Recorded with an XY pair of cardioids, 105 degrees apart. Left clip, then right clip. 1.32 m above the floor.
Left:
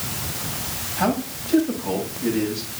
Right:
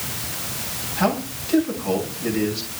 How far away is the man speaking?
About 8 m.